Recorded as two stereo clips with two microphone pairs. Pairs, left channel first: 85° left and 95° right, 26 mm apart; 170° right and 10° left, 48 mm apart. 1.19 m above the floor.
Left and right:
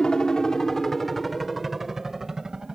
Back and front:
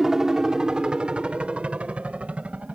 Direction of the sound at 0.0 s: 80° left.